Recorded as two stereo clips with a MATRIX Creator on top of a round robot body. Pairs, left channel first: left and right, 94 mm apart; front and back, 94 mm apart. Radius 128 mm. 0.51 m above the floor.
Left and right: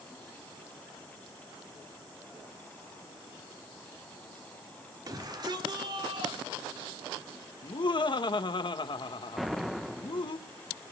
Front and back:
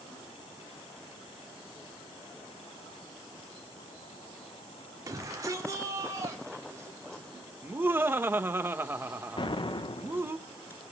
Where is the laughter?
115° left, 1.4 m.